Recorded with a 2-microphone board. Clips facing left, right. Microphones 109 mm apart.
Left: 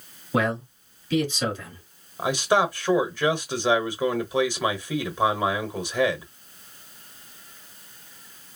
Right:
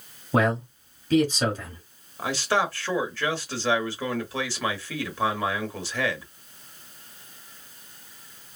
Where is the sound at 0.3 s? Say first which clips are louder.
Right 2 dB; 40° right (ahead or behind), 1.8 m.